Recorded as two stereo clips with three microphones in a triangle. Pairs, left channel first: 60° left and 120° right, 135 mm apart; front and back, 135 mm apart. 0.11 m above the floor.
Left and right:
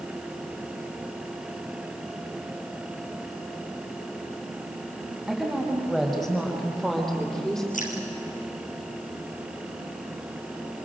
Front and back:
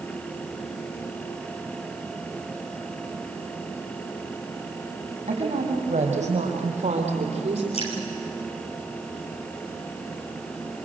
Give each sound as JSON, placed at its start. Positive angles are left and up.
{"t": 5.3, "sound": "a woman speaking", "azimuth_deg": 150, "distance_m": 5.5}
{"t": 7.7, "sound": "dripping", "azimuth_deg": 40, "distance_m": 5.5}